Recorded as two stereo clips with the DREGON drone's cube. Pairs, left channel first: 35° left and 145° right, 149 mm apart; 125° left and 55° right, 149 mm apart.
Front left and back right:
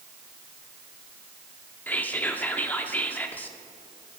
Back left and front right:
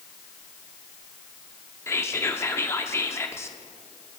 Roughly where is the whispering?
Left.